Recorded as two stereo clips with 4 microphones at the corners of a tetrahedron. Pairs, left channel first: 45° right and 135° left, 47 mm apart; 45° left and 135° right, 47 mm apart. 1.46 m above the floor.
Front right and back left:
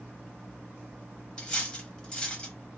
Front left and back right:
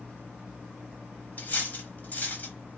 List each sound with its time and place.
1.4 s cutlery clinking: 20° left, 0.8 m